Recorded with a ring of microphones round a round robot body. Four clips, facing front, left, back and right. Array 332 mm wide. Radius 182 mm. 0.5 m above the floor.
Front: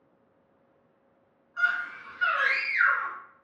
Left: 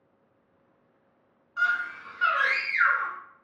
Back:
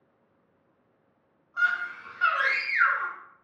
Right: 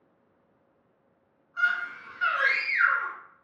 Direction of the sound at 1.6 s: 155° left.